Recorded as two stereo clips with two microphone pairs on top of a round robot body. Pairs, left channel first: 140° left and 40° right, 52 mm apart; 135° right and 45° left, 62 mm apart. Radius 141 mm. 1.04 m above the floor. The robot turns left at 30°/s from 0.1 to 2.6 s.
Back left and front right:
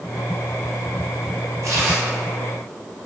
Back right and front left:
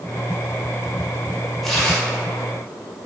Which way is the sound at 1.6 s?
50° right.